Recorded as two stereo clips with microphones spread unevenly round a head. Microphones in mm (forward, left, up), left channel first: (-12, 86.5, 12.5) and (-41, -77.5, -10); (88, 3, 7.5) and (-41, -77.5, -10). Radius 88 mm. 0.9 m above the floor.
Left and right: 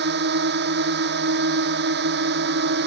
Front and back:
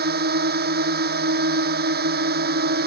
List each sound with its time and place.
0.0 s a drone: 125° right